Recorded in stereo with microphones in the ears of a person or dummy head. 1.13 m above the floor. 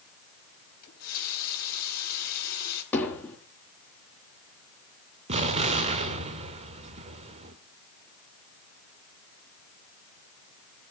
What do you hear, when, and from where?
0.8 s a running tap: 55° left (ahead or behind), 4 m
2.9 s hammering: 15° left (ahead or behind), 4 m
5.3 s an explosion: 35° right (ahead or behind), 1.6 m